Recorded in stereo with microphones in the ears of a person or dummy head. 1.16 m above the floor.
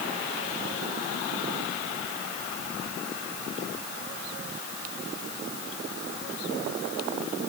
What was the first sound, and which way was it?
Only background noise.